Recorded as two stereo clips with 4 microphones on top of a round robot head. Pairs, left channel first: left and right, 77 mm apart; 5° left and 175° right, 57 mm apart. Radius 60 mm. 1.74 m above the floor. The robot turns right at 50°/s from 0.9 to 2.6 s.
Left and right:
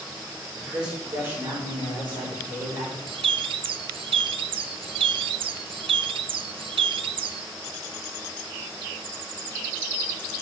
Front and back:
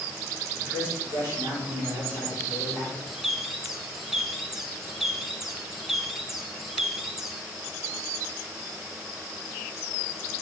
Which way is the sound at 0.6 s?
175° right.